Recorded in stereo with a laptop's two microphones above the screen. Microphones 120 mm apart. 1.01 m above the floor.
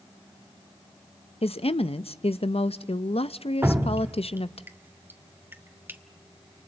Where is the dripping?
20° right (ahead or behind), 1.7 m.